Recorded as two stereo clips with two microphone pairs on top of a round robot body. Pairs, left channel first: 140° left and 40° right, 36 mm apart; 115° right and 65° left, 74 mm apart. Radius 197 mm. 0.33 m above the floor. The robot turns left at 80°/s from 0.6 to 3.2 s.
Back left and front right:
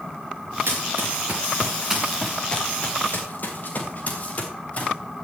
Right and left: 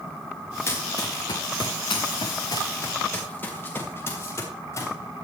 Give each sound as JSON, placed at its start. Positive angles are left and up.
{"t": 0.7, "sound": "running footsteps", "azimuth_deg": -55, "distance_m": 2.5}